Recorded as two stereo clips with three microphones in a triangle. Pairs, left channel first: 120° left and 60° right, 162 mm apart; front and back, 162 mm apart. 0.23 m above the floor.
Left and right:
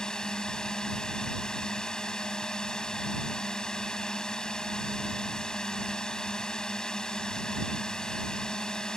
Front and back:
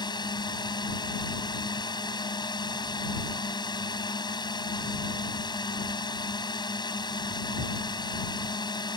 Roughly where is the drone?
Ahead left.